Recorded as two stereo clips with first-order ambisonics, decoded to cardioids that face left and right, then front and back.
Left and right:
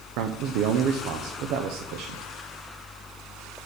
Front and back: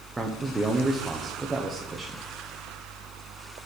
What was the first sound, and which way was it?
A man speaking, 100° right.